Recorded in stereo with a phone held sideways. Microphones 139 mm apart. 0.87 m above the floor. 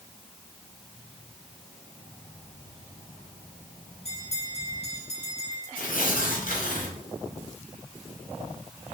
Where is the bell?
50° left (ahead or behind), 3.5 m.